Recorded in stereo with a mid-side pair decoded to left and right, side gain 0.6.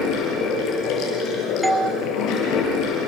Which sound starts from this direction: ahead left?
Running water, at 0.0 s.